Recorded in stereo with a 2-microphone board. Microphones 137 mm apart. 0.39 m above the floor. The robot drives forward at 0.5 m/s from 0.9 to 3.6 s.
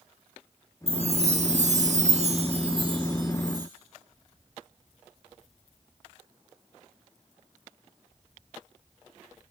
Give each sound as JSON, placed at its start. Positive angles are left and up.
{"t": 0.9, "sound": "a chime", "side_deg": -45, "distance_m": 0.8}